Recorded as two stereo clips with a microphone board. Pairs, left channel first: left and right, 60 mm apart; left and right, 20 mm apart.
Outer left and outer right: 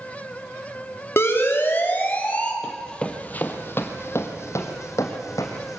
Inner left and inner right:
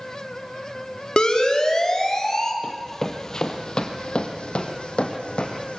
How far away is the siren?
About 3 m.